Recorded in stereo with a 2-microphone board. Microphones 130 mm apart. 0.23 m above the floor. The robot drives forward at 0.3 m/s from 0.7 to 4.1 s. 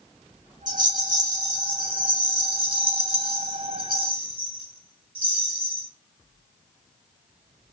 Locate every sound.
0.7 s a rattle: 30° right (ahead or behind), 1.3 m; by 5.9 s 45° right (ahead or behind), 1.0 m